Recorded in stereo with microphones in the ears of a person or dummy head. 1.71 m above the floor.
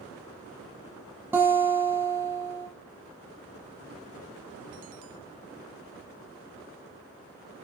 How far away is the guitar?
About 2.5 m.